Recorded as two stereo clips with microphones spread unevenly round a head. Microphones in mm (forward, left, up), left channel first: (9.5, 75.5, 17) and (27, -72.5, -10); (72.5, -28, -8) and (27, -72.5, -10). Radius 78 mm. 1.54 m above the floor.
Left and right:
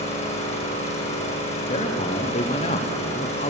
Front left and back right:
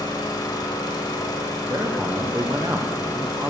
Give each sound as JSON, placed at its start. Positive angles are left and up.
{"t": 0.0, "sound": "an engine running", "azimuth_deg": 55, "distance_m": 2.0}
{"t": 1.7, "sound": "a man speaking", "azimuth_deg": 155, "distance_m": 0.9}